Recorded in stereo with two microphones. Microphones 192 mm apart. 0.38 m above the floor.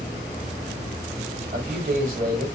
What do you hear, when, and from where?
1.5 s a man speaking: 45° right (ahead or behind), 1.6 m